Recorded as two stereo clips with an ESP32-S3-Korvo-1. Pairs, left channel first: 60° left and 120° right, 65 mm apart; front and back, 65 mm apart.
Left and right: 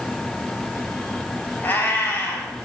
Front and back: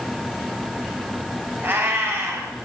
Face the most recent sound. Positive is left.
turn(degrees=120)